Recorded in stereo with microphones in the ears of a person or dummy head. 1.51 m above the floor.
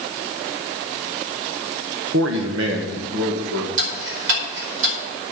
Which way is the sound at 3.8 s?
70° right (ahead or behind).